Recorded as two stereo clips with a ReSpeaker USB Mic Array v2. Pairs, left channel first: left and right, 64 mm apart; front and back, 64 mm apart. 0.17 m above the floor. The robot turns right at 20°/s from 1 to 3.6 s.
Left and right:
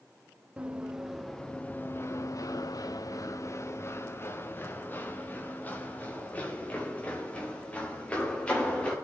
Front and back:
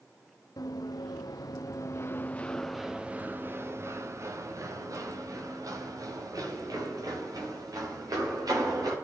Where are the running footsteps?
20° right, 1.8 m; by 8.9 s 165° left, 6 m.